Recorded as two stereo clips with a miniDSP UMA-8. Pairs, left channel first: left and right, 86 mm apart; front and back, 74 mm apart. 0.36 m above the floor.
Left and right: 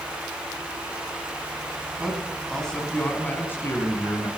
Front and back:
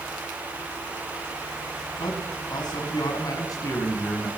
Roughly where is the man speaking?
Ahead.